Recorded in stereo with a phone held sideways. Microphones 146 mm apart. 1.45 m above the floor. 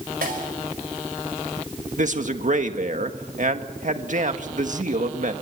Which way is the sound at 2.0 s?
60° right (ahead or behind).